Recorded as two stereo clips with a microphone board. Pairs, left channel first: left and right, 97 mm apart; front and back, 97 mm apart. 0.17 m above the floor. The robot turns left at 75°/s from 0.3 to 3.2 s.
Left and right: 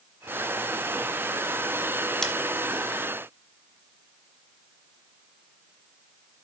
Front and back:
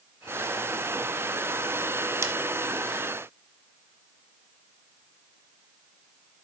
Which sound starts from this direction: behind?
Scissors, at 2.2 s.